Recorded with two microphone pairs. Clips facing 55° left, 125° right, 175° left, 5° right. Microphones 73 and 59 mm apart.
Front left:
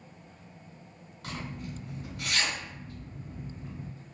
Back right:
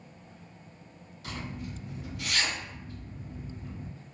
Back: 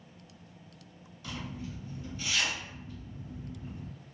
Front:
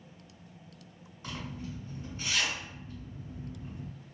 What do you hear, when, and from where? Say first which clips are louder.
1.2 s a zipper: even, even; 30° left, 2.0 m